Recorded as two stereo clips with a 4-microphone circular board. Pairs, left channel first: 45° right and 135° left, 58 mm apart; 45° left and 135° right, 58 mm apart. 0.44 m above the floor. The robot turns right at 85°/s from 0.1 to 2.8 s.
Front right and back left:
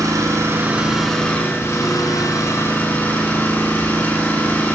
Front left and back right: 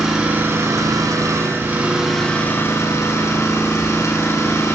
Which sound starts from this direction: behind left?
An engine running, at 0.0 s.